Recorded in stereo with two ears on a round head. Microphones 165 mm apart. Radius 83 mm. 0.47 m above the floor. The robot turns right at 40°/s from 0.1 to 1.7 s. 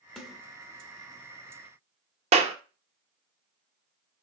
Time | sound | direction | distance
0.2 | a snare drum | centre (ahead or behind) | 0.9 m
2.3 | a clap | 35° right (ahead or behind) | 0.5 m